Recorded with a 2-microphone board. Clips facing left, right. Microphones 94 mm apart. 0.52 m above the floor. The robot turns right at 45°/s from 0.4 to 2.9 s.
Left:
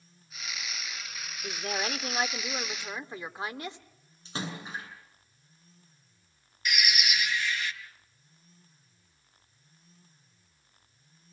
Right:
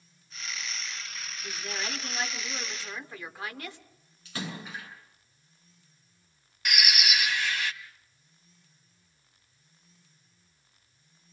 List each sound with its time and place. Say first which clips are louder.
1.4 s a woman speaking: left 4 dB; 85° left, 1.3 m; by 3.8 s 150° left, 1.3 m
4.2 s a splash: left 1 dB; 30° left (ahead or behind), 7 m
6.7 s a bird: right 1 dB; 75° right (ahead or behind), 1.1 m